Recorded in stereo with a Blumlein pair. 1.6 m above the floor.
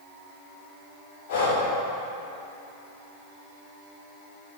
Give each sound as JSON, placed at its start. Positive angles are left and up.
{"t": 1.3, "sound": "breathing", "azimuth_deg": 55, "distance_m": 1.9}